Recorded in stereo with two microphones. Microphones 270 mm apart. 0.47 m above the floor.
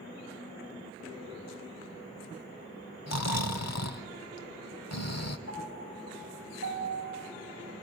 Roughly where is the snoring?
Left.